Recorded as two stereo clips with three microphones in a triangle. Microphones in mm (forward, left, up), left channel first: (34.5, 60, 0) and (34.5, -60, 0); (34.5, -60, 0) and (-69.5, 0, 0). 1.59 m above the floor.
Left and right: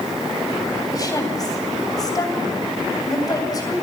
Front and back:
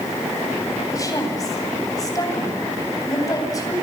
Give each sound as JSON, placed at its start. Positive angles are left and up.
{"t": 0.9, "sound": "a woman speaking", "azimuth_deg": 30, "distance_m": 9.0}